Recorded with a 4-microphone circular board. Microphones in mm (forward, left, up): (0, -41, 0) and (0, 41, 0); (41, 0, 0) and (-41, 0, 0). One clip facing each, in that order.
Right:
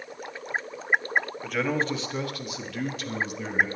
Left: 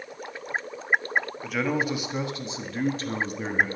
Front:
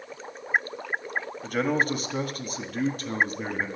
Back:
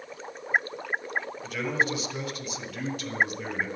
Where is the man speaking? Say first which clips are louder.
Even, front 4 dB; straight ahead, 1.5 m; by 3.7 s 50° left, 2 m.